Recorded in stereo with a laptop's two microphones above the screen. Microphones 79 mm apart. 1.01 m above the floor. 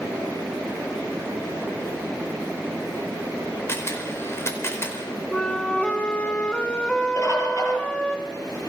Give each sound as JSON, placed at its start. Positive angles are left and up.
{"t": 3.7, "sound": "a camera shutter", "side_deg": 35, "distance_m": 4.5}
{"t": 5.3, "sound": "a flute", "side_deg": 15, "distance_m": 2.0}
{"t": 7.2, "sound": "a bird", "side_deg": 45, "distance_m": 6.0}